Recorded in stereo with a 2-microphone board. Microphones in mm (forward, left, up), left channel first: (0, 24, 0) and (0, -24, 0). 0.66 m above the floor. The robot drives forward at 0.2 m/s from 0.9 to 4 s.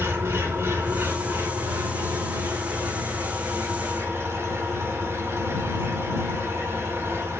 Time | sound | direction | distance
0.0 | an engine running | 70° right (ahead or behind) | 5.5 m